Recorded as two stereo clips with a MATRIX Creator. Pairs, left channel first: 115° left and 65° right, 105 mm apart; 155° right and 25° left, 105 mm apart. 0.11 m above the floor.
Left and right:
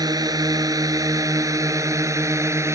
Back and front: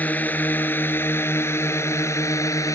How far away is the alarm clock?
I don't hear an alarm clock.